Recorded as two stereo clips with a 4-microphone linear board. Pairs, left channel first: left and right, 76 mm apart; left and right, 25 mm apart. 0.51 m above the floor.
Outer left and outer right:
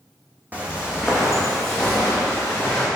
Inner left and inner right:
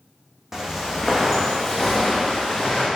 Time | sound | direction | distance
0.5 | footsteps | 20° right (ahead or behind) | 1.0 m